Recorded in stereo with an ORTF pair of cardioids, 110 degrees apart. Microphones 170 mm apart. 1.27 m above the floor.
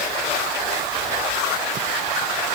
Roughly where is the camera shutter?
I don't hear a camera shutter.